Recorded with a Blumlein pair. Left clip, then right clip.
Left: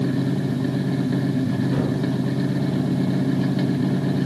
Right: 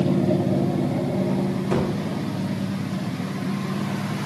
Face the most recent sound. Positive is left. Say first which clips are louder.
# right 4 dB
turn(degrees=-45)